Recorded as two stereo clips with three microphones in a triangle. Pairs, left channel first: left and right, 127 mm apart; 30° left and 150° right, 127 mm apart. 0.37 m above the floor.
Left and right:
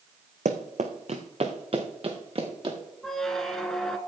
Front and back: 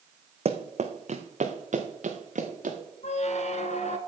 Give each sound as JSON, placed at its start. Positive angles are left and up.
{"t": 0.5, "sound": "running footsteps", "azimuth_deg": -110, "distance_m": 1.5}
{"t": 3.0, "sound": "a squeak", "azimuth_deg": 5, "distance_m": 1.3}